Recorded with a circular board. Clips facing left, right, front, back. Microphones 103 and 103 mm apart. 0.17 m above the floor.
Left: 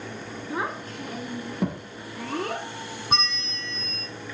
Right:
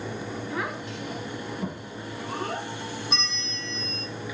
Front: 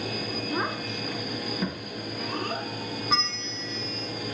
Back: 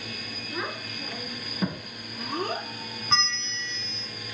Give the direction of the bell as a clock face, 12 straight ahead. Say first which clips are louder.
Left 4 dB, back 3 dB; 9 o'clock.